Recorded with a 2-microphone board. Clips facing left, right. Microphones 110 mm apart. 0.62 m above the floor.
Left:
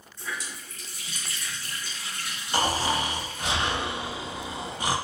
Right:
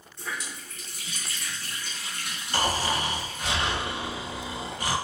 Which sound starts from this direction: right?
A running tap, at 0.2 s.